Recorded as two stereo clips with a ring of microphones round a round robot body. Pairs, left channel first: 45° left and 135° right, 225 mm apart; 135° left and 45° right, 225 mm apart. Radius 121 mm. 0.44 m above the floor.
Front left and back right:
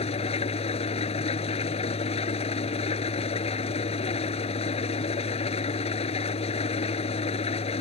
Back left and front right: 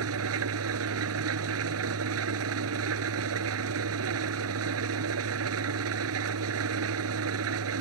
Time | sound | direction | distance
0.0 | an engine running | 20° right | ?